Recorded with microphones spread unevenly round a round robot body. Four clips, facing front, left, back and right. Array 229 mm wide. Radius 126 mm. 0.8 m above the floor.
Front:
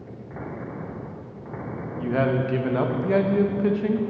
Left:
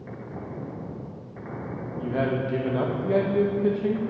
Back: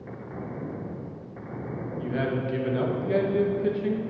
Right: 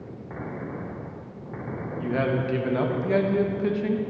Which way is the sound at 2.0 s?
5° right.